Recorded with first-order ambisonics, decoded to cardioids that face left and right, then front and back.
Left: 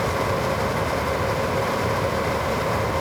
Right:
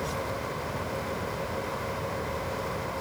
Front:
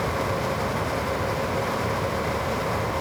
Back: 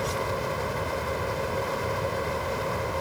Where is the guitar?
No guitar in this recording.